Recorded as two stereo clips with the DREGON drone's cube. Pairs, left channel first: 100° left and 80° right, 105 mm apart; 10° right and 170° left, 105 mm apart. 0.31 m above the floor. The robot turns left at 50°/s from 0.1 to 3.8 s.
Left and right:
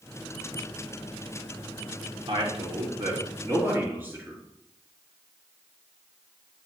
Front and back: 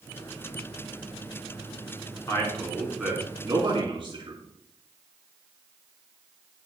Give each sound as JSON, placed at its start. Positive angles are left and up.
{"t": 2.3, "sound": "a man speaking", "azimuth_deg": -75, "distance_m": 3.5}